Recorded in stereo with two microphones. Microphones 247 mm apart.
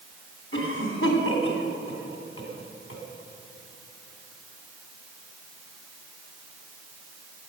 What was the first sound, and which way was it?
A cough, 60° left (ahead or behind).